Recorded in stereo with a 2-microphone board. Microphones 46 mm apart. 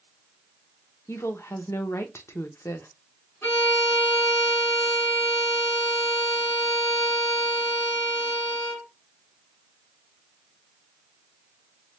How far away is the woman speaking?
About 0.6 m.